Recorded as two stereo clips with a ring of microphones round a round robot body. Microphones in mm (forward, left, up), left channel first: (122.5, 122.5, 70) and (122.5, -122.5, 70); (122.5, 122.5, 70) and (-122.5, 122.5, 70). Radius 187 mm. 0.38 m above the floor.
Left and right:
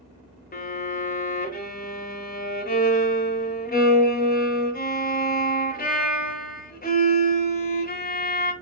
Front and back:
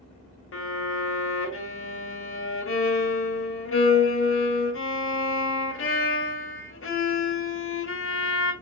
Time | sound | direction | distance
0.5 | a violin | 35° left | 1.2 m